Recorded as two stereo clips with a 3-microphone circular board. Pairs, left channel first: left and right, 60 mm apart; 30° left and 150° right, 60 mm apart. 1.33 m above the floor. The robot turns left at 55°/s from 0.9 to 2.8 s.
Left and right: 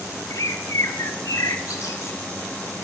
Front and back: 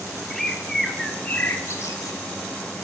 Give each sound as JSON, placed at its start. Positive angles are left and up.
{"t": 0.3, "sound": "a bird", "azimuth_deg": 115, "distance_m": 1.8}